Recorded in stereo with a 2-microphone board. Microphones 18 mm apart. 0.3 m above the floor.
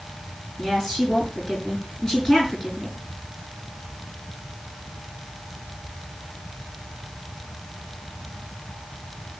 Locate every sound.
0.6 s a woman speaking: 25° left (ahead or behind), 6 m